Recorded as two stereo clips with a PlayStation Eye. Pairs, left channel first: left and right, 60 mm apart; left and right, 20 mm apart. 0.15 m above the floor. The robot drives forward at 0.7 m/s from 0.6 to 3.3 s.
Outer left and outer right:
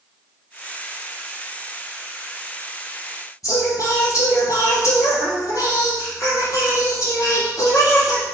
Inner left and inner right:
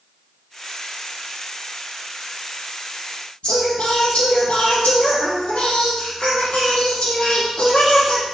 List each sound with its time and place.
3.4 s singing: 70° left (ahead or behind), 4.5 m